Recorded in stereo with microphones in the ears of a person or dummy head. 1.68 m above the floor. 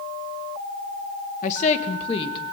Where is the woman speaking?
40° left (ahead or behind), 2 m; by 2.5 s 20° left (ahead or behind), 3 m.